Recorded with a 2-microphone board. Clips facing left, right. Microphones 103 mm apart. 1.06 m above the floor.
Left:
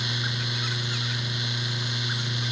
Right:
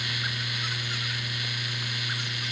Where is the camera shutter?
I don't hear a camera shutter.